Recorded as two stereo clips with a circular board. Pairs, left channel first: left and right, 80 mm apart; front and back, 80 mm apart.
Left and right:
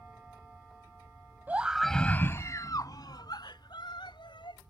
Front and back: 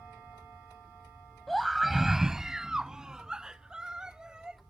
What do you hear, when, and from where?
1.5 s a scream: 85° right; by 4.6 s 100° left